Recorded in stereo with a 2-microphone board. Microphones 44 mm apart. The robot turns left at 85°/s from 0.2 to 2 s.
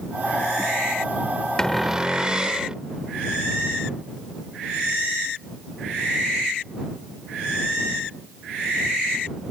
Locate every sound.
1.6 s a cupboard door: 20° left; by 2.8 s 15° right